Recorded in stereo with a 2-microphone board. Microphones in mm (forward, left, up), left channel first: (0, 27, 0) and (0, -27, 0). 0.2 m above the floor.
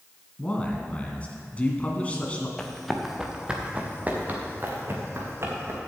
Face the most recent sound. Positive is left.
turn(degrees=-50)  # may be behind; listen again after turning